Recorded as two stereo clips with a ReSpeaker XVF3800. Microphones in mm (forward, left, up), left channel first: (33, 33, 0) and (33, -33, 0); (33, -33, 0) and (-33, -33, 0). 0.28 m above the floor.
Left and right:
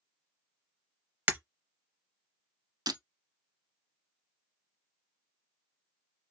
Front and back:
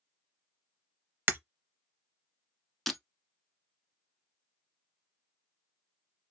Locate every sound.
1.3 s breaking glass: 140° right, 0.5 m
2.9 s breaking glass: 85° right, 0.6 m